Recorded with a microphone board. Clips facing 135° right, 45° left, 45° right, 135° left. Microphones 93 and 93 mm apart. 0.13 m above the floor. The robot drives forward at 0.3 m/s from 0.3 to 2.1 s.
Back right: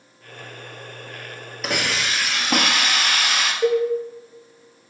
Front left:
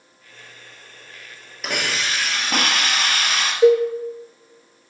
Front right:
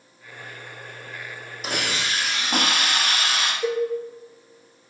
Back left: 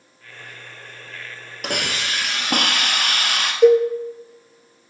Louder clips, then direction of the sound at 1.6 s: Back right 1 dB, back left 1 dB; 135° left.